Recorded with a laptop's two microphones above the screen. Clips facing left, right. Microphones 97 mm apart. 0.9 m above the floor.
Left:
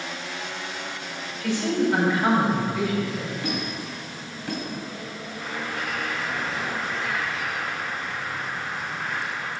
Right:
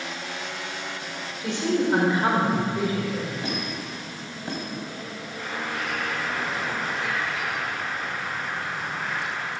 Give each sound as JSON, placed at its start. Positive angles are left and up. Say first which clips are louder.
{"t": 1.4, "sound": "a man speaking", "louder": "left 1 dB", "side_deg": -20, "distance_m": 4.0}
{"t": 3.4, "sound": "a squeak", "louder": "left 1 dB", "side_deg": -25, "distance_m": 3.0}
{"t": 5.4, "sound": "a bird", "louder": "right 1 dB", "side_deg": -70, "distance_m": 4.5}